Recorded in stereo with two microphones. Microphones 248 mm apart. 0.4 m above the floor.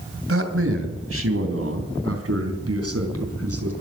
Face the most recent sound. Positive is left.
turn(degrees=-75)  # may be behind; listen again after turning